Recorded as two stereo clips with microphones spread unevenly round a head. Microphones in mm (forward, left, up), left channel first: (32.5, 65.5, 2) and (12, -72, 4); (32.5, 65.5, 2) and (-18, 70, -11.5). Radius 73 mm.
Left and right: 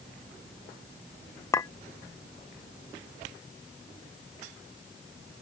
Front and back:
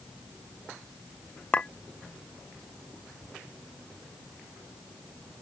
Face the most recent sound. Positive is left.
turn(degrees=20)